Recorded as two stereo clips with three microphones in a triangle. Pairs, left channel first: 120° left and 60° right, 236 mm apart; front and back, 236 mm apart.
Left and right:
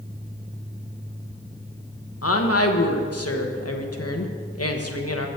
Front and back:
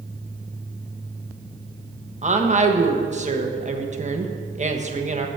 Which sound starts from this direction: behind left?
A woman speaking, at 2.2 s.